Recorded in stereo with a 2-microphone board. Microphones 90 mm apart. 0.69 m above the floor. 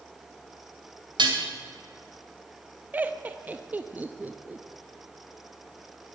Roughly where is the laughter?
Centre.